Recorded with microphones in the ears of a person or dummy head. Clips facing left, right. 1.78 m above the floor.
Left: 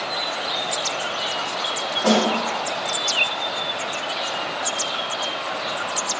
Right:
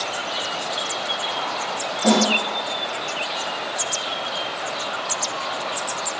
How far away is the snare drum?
About 3 m.